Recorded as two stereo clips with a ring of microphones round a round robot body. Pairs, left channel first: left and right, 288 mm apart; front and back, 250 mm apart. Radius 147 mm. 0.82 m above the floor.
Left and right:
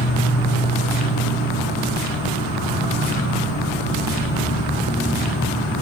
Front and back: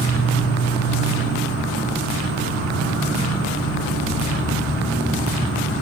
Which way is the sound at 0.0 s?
145° left.